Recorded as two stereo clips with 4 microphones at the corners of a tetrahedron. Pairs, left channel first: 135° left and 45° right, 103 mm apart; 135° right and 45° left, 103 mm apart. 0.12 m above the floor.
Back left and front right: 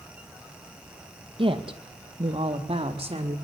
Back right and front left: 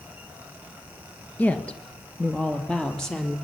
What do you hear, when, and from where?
1.4 s a woman speaking: 60° right, 2.5 m; by 3.4 s 50° right, 4.5 m